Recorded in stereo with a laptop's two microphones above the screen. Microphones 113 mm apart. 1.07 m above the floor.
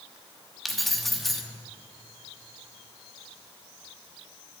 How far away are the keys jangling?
About 1.1 m.